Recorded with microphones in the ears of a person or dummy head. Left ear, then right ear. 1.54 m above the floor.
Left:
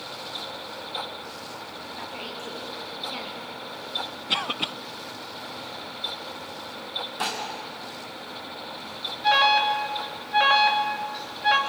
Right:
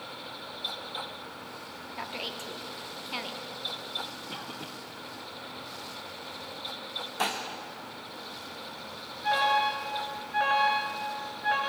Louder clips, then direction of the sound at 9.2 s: Left 6 dB; 30° left (ahead or behind).